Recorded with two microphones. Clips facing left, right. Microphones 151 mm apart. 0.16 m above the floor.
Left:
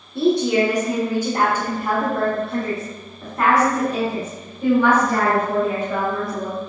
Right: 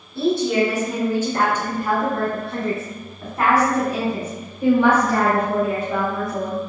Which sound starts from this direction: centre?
A woman speaking, at 0.1 s.